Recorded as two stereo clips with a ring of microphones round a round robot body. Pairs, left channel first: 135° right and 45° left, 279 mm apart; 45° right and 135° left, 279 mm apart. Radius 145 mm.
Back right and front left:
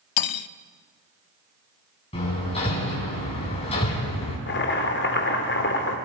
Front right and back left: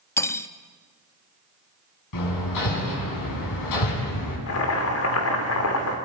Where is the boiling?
85° right, 2.5 m.